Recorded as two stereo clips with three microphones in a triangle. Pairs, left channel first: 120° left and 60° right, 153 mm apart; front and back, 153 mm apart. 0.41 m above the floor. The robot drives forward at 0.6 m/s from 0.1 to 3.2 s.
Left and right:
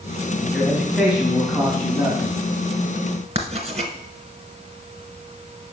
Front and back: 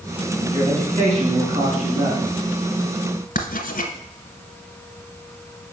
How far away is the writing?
About 0.9 m.